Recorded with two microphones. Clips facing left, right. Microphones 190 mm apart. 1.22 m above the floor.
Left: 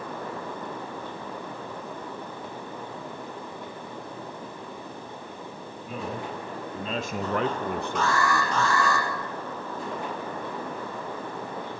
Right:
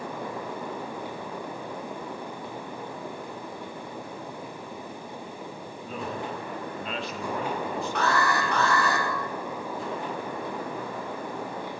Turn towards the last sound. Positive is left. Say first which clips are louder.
# even
turn(degrees=-60)  # may be behind; listen again after turning